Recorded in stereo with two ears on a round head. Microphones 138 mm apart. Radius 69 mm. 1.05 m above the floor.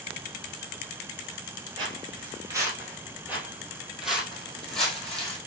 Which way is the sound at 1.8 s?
30° right (ahead or behind).